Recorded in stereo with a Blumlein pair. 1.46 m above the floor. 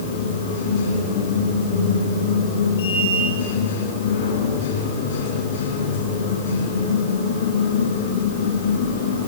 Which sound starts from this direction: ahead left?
A machine running, at 0.0 s.